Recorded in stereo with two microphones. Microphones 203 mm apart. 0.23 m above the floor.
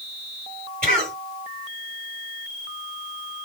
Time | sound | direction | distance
0.8 | a cough | 45° right (ahead or behind) | 2.5 m